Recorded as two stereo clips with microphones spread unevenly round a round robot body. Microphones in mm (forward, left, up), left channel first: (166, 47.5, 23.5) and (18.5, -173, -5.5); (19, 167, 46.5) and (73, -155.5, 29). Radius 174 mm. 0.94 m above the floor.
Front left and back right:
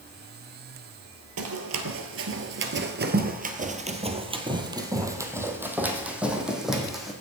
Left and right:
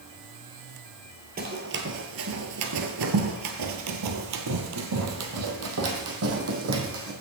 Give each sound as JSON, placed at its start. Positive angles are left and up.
{"t": 1.4, "sound": "running footsteps", "azimuth_deg": -140, "distance_m": 1.3}